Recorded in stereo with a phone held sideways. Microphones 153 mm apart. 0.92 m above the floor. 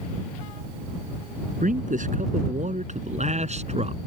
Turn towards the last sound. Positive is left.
turn(degrees=-45)  # may be behind; listen again after turning